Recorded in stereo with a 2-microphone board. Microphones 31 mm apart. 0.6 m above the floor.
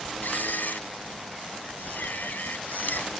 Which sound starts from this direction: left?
A camera shutter, at 0.2 s.